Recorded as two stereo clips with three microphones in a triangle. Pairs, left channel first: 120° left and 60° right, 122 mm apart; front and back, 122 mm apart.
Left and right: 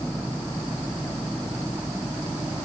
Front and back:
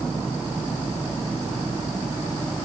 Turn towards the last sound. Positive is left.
No sound to turn to.